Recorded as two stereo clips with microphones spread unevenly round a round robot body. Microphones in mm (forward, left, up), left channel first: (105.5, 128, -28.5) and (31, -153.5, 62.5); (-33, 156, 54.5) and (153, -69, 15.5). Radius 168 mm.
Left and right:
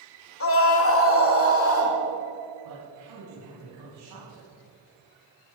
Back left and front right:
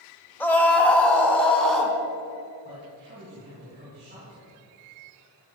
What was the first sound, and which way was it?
A scream, 45° left.